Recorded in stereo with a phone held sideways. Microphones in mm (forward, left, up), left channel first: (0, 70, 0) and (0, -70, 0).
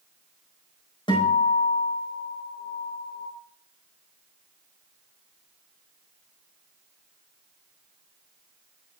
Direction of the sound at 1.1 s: 40° left (ahead or behind).